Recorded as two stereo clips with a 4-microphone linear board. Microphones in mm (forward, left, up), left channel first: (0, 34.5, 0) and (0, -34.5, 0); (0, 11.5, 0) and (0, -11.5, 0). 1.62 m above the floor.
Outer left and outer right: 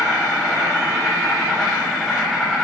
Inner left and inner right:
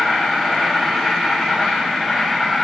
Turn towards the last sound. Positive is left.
turn(degrees=0)  # may be behind; listen again after turning